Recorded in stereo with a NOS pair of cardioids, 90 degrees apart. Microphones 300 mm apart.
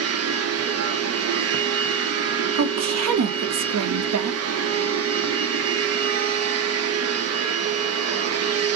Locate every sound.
0.0 s a machine running: 55° right, 0.7 m
2.5 s a woman speaking: 65° right, 1.0 m